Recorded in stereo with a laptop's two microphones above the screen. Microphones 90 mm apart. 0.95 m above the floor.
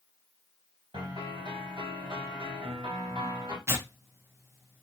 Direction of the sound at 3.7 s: 30° right (ahead or behind).